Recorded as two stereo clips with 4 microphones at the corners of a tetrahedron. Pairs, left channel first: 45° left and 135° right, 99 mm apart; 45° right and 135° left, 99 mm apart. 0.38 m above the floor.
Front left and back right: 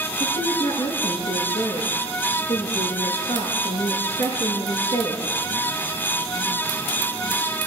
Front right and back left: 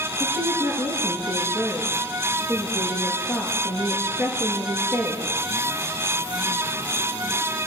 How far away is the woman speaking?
About 7 m.